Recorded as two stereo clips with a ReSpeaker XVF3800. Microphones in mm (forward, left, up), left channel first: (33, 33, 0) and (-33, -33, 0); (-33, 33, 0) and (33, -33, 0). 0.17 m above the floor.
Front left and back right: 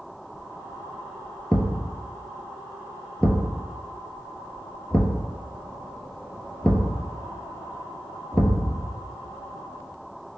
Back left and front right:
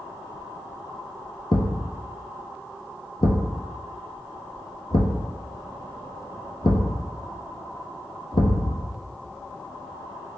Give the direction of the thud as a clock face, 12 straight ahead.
8 o'clock.